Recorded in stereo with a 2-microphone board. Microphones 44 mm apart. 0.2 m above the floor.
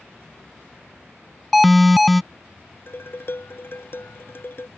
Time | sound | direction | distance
1.5 | an alarm | centre (ahead or behind) | ?
2.9 | dishes clattering | 55° left (ahead or behind) | ?